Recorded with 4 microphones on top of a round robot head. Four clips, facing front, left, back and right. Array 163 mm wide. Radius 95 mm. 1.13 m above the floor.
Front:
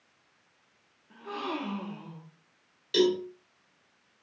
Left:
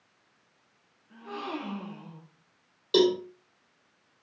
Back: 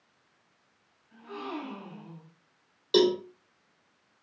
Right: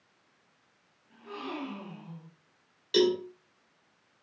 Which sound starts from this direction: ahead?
A gasp, at 1.1 s.